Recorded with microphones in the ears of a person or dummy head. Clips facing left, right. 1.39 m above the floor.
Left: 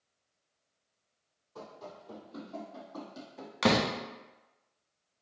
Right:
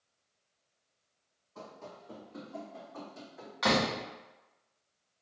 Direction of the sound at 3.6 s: 35° left (ahead or behind).